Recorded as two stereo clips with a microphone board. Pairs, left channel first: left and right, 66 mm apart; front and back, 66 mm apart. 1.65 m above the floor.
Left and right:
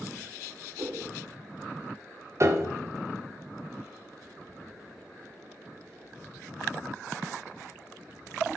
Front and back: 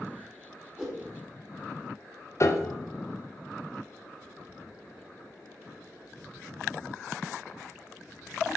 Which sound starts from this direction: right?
A whoosh, at 0.8 s.